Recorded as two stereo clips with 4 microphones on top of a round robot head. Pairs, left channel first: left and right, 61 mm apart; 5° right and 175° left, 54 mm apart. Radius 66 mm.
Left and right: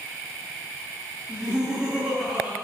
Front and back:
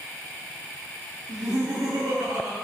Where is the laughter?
165° right, 2.5 m.